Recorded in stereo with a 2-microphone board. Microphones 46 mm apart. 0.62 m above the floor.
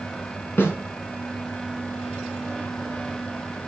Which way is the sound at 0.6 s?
50° left (ahead or behind).